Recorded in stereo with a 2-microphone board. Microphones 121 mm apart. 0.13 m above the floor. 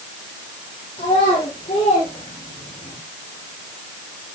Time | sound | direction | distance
1.0 | a child speaking | 65° left (ahead or behind) | 4.5 m